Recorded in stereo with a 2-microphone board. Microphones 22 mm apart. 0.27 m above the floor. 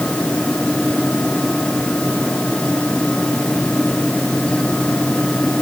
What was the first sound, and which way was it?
Only background noise.